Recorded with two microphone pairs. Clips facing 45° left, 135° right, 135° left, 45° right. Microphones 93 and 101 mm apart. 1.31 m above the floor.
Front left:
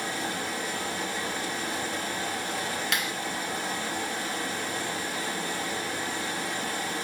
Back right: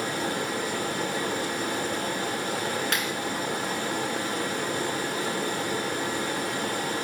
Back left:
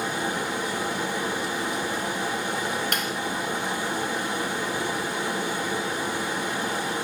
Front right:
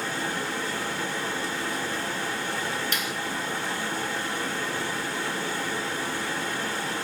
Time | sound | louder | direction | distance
0.0 | running water | back right 3 dB, back left 3 dB | 155° right | 1.5 m
2.9 | a clap | back right 2 dB, back left 3 dB | 170° left | 5.5 m